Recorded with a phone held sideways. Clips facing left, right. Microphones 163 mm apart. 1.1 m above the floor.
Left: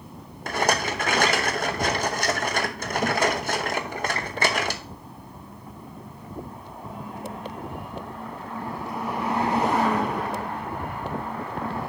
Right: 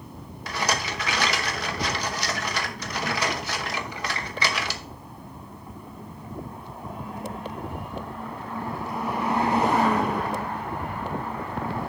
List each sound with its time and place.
0.5 s a rattle: 50° left (ahead or behind), 0.9 m